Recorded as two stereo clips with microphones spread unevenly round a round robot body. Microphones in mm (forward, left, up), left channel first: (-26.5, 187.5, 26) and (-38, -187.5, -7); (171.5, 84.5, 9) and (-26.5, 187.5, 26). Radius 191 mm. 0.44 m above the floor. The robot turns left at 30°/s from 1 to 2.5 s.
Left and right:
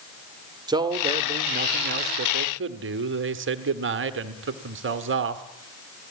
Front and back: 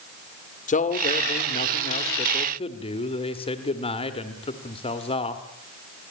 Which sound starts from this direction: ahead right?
A man speaking, at 0.7 s.